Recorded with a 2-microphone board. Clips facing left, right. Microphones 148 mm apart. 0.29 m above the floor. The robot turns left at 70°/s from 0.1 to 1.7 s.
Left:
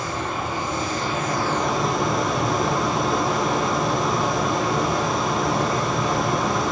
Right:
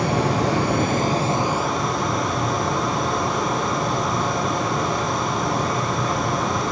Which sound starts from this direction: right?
Running water, at 0.0 s.